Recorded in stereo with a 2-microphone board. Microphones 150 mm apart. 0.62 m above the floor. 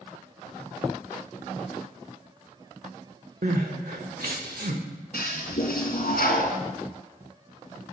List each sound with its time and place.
3.4 s crying: 75° right (ahead or behind), 1.2 m
5.1 s a toilet flushing: 80° left, 1.6 m